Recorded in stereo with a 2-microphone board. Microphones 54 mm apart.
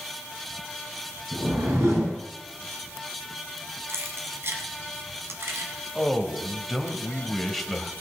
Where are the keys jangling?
55° right (ahead or behind), 1.7 m.